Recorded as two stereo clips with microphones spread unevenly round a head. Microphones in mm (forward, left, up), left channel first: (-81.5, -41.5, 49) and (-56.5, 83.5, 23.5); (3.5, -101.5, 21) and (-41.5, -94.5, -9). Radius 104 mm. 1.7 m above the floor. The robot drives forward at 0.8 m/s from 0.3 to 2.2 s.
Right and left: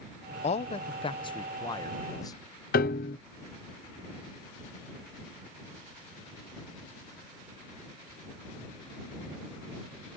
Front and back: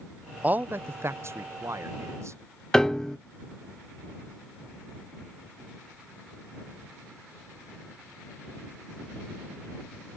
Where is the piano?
90° right.